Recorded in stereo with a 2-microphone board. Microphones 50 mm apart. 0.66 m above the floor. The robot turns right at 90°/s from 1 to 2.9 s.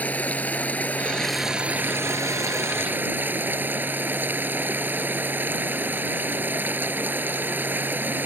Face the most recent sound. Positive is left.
turn(degrees=-40)